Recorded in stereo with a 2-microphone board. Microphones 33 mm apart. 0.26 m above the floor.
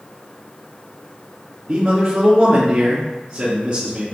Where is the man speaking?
45° right (ahead or behind), 2.5 m.